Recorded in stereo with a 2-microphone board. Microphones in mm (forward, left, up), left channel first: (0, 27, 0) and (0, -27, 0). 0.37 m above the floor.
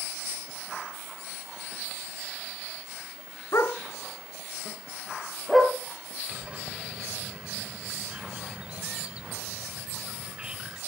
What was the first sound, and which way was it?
A dog barking, 65° left (ahead or behind).